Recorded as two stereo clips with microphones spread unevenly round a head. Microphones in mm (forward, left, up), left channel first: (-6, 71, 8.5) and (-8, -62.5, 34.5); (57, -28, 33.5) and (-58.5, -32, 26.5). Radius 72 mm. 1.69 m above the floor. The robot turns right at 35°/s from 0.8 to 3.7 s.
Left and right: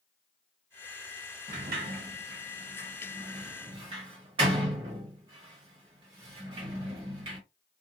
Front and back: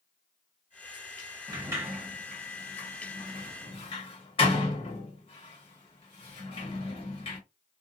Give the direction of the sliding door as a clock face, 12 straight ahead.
4 o'clock.